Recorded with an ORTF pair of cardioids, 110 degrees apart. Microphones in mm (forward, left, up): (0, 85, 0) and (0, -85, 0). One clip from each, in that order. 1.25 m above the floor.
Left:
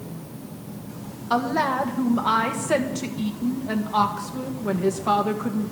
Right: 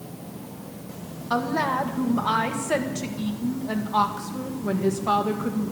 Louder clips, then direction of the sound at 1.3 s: Left 2 dB; 10° left.